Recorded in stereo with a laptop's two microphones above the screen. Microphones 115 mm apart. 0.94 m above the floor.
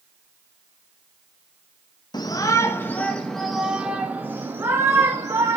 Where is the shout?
35° left (ahead or behind), 1.2 m; by 5.6 s 30° right (ahead or behind), 2 m.